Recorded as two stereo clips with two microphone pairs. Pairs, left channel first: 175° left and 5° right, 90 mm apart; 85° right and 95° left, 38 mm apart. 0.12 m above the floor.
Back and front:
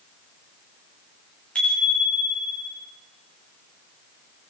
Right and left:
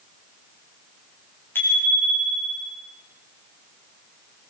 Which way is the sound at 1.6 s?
105° right.